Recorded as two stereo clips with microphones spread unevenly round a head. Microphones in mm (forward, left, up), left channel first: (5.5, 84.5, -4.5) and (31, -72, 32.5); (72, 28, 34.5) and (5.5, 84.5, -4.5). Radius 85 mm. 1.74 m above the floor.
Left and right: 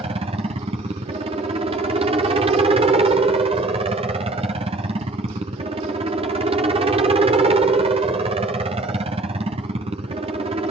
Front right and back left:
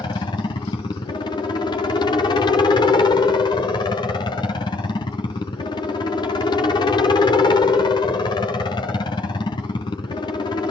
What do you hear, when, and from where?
0.0 s a helicopter: 55° right